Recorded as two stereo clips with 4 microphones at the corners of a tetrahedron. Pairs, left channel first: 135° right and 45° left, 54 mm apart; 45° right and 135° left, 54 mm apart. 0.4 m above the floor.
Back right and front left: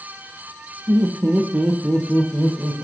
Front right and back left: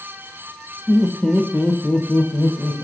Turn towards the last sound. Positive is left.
turn(degrees=-40)